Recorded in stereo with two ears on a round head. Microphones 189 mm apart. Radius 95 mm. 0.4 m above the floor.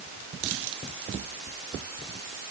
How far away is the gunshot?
I don't hear a gunshot.